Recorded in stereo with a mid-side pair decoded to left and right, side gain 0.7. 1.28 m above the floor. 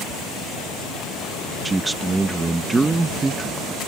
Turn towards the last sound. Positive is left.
turn(degrees=-20)